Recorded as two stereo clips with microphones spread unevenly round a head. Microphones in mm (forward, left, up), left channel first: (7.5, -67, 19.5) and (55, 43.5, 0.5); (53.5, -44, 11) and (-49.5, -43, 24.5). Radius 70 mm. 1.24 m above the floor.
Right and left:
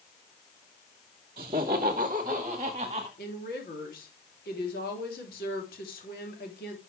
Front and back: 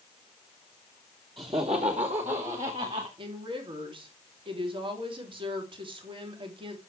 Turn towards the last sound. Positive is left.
turn(degrees=-145)